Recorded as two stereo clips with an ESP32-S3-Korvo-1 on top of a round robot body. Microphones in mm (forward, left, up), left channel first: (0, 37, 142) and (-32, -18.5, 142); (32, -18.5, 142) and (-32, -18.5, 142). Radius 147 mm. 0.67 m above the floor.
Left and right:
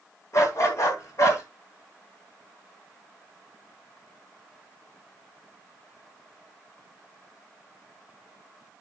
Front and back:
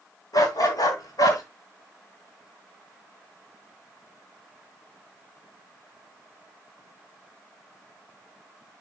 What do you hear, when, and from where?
0.3 s a dog barking: 20° left, 3.5 m